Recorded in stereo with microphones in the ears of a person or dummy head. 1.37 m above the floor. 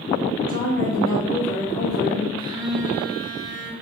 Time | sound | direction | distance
0.5 | a woman speaking | 35° left (ahead or behind) | 2.0 m
2.4 | a phone buzzing | 20° right (ahead or behind) | 0.8 m